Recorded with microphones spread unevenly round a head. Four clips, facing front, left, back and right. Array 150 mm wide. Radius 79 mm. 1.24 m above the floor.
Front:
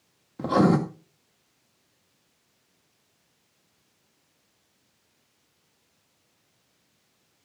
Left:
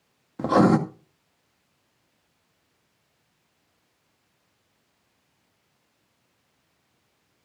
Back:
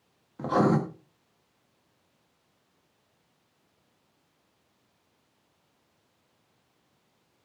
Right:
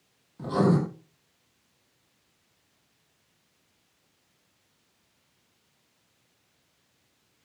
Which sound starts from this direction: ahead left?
Writing, at 0.4 s.